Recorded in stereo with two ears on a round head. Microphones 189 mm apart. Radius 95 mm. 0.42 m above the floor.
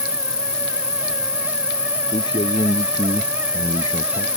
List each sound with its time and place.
0.0 s an insect: 5° left (ahead or behind)
2.1 s a man speaking: 20° left (ahead or behind)